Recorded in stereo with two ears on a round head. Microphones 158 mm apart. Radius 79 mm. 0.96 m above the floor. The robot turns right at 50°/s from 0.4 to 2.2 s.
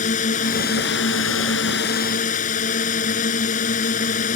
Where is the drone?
45° left; by 4.4 s 135° left.